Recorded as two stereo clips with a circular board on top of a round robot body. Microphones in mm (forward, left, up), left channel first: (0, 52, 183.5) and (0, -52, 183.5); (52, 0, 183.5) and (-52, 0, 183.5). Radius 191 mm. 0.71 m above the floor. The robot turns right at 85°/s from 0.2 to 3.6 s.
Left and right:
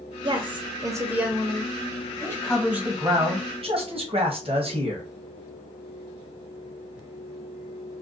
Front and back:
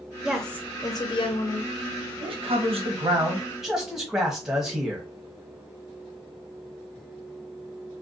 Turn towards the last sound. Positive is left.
turn(degrees=-95)